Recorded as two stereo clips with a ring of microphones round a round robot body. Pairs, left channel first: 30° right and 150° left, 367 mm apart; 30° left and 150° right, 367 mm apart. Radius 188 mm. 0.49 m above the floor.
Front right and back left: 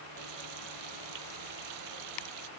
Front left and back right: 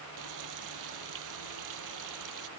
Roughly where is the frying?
Behind.